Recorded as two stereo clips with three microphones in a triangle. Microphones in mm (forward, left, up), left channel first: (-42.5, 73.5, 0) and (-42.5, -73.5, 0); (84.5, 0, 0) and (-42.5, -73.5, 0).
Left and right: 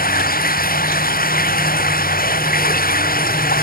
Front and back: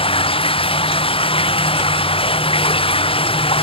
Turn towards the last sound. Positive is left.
turn(degrees=80)